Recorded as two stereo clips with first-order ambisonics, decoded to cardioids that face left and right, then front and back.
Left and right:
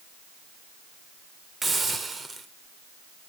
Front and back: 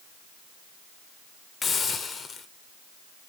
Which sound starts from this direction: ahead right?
A hiss, at 1.6 s.